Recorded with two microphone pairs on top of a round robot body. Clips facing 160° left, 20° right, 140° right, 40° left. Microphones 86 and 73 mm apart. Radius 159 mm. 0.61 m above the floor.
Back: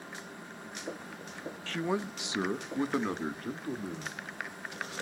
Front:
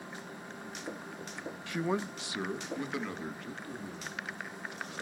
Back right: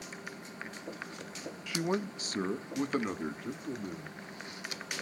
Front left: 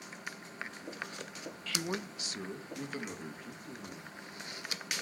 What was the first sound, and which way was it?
A man speaking, 75° right.